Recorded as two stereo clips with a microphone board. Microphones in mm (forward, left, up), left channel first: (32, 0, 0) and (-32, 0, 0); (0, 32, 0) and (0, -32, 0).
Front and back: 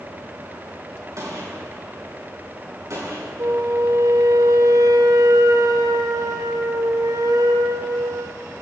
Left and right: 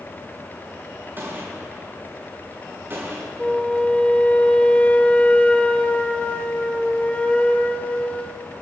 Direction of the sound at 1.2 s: 145° right.